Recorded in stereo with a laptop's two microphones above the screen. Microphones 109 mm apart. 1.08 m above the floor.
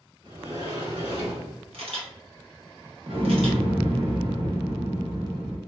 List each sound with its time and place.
0.2 s a sliding door: 60° right (ahead or behind), 2.0 m
1.7 s a camera shutter: 65° right (ahead or behind), 1.4 m
3.1 s an explosion: 65° right (ahead or behind), 1.3 m